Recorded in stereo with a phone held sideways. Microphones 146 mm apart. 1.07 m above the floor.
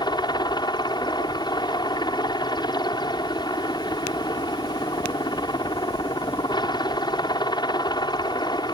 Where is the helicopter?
30° left (ahead or behind).